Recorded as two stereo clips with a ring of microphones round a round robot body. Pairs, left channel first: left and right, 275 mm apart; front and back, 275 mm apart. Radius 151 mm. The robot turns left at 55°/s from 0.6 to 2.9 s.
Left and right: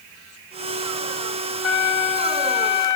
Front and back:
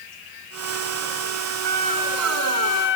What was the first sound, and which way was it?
A trumpet, 125° left.